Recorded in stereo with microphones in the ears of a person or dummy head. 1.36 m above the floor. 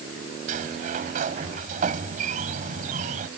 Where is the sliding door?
50° right (ahead or behind).